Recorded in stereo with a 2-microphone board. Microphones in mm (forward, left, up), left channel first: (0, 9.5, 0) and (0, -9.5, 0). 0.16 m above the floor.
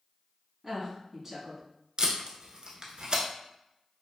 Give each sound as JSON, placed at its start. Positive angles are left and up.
{"t": 0.6, "sound": "a woman speaking", "side_deg": -15, "distance_m": 1.1}
{"t": 2.0, "sound": "tape being pulled", "side_deg": -55, "distance_m": 0.7}